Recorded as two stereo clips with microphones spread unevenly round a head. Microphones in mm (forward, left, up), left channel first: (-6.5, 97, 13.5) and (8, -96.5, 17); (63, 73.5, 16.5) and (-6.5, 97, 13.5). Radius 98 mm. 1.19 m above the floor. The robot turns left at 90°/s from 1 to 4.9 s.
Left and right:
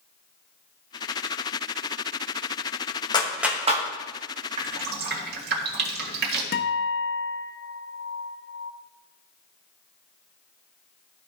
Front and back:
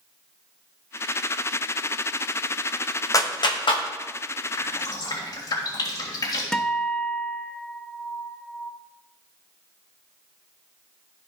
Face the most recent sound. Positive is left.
turn(degrees=60)